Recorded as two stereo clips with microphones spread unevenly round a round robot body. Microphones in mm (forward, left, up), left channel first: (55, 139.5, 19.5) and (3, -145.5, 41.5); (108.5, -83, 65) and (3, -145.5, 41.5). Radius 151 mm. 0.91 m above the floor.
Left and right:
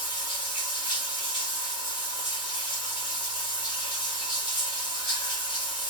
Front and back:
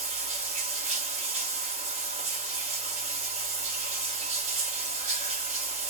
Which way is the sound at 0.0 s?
155° left.